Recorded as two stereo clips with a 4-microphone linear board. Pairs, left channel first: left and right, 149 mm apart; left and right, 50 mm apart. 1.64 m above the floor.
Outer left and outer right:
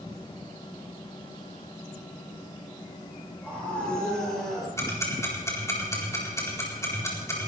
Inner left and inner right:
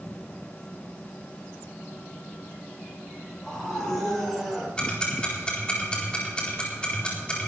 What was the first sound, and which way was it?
A scream, 10° left (ahead or behind).